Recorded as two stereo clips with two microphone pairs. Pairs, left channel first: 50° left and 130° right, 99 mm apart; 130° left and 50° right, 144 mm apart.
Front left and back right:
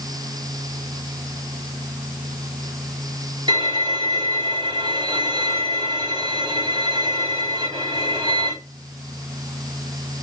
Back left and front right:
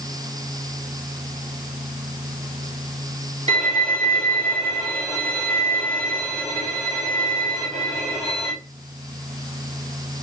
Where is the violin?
100° right, 1.6 m.